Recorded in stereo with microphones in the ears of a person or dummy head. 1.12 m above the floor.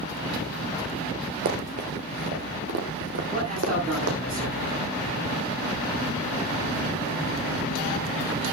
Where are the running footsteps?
35° right (ahead or behind), 1.5 m; by 4.2 s 60° right (ahead or behind), 4 m.